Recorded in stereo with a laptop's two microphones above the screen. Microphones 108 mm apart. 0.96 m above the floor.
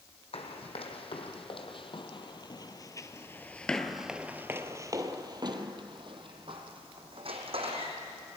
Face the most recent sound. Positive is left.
turn(degrees=-70)  # may be behind; listen again after turning